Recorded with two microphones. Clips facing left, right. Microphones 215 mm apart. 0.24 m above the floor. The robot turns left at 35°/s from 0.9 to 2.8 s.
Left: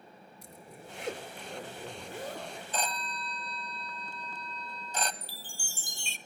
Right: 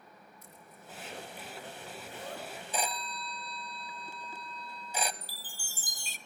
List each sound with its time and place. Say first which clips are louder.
0.4 s a zipper: left 7 dB; 95° left, 3.5 m; by 2.6 s 30° left, 3.5 m
2.7 s a phone ringing: even; 10° right (ahead or behind), 1.0 m
5.2 s a chime: left 3 dB; 25° left (ahead or behind), 1.0 m